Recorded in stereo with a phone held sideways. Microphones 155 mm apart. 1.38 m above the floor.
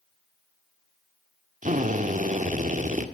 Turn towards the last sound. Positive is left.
turn(degrees=-55)  # may be behind; listen again after turning